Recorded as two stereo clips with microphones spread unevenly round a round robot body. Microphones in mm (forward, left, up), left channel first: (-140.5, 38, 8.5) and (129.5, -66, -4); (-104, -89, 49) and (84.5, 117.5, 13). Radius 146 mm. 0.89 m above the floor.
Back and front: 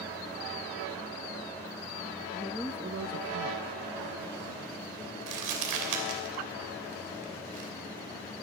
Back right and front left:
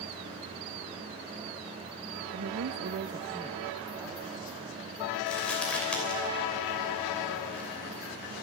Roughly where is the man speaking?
Left.